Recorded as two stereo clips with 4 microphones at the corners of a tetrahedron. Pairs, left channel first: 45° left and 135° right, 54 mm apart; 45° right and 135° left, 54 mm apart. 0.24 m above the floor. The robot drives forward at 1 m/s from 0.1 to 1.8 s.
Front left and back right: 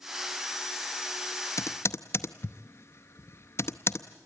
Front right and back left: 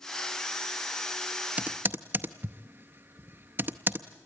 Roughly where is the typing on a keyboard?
Ahead left.